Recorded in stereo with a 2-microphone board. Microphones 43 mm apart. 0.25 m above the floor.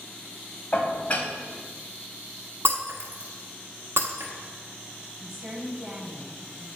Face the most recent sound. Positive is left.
turn(degrees=-5)  # may be behind; listen again after turning